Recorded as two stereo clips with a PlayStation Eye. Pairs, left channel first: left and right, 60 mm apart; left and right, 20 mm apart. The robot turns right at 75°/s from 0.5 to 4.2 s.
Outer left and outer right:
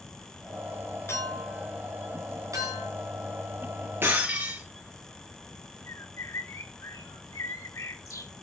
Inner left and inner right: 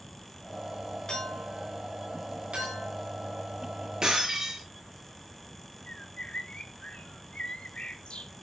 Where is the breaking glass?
35° right (ahead or behind), 7.5 m; by 4.6 s 20° right (ahead or behind), 7.5 m.